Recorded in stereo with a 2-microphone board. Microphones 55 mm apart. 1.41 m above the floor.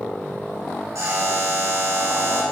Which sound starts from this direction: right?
A buzzer, at 0.9 s.